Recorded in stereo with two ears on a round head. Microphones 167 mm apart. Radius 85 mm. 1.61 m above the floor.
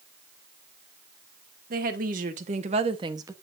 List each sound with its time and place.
1.7 s a woman speaking: 50° right (ahead or behind), 1.9 m; by 3.3 s 15° right (ahead or behind), 0.9 m